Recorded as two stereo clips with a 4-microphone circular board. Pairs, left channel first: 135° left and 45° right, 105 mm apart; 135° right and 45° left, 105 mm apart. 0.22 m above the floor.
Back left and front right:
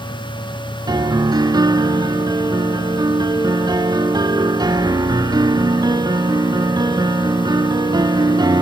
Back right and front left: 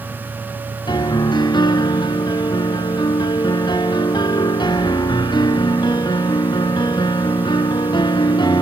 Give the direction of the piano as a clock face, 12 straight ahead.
3 o'clock.